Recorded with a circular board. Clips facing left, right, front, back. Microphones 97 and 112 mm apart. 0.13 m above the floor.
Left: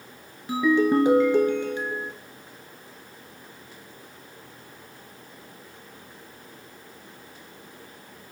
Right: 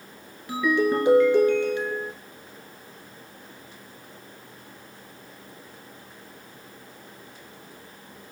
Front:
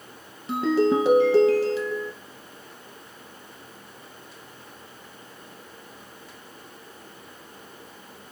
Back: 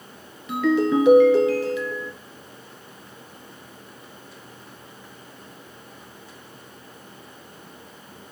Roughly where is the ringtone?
Ahead left.